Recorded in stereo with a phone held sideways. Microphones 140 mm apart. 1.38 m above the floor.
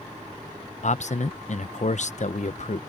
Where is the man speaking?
60° left (ahead or behind).